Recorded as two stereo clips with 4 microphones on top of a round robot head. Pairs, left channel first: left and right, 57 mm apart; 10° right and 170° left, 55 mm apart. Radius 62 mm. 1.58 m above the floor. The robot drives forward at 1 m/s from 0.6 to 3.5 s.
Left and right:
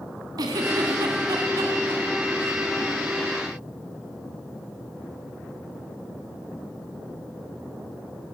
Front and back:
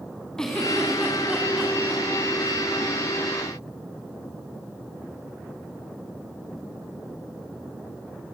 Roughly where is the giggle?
Right.